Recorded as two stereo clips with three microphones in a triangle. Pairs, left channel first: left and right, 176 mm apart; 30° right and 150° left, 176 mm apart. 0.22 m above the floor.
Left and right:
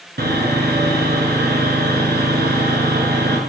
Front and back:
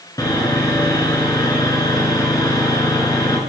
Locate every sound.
0.2 s sawing: 100° right, 1.4 m